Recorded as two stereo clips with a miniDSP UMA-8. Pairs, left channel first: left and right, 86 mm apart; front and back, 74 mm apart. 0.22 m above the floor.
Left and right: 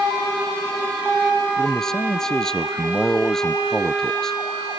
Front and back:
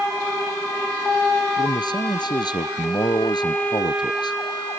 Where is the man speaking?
5° left.